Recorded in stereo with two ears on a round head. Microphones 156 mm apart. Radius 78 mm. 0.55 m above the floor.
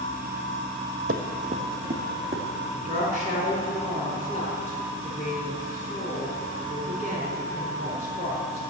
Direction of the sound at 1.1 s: 55° right (ahead or behind).